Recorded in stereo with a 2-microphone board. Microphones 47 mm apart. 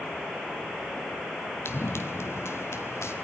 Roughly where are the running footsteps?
Left.